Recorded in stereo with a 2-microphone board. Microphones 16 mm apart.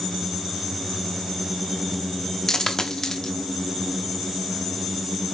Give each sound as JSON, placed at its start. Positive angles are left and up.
{"t": 2.5, "sound": "a dropped coin", "side_deg": 40, "distance_m": 0.6}